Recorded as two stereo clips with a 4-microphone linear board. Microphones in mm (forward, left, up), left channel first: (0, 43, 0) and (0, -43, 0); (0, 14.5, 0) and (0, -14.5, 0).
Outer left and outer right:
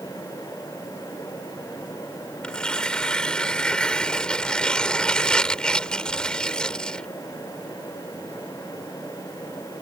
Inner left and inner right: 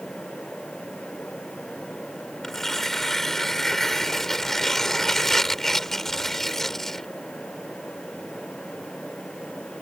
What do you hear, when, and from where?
2.4 s tearing paper: 10° left (ahead or behind)